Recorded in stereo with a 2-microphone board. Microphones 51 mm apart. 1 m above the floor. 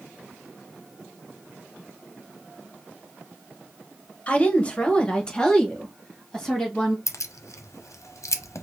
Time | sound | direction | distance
4.3 | a woman speaking | 25° left (ahead or behind) | 0.8 m
7.1 | keys jangling | 85° left | 0.5 m